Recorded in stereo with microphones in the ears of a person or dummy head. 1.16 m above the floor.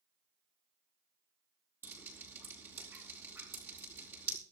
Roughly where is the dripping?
Centre.